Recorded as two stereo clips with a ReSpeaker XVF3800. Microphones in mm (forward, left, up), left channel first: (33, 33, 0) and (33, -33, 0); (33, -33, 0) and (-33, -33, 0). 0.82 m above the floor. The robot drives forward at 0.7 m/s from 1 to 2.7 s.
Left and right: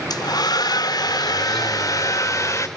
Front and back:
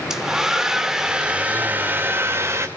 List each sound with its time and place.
0.1 s a hair dryer: 100° left, 1.6 m; by 2.7 s 130° left, 2 m